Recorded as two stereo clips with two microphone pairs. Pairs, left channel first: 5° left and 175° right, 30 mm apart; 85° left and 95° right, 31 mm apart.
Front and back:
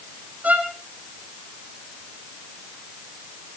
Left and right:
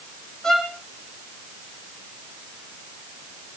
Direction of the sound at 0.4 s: 160° left.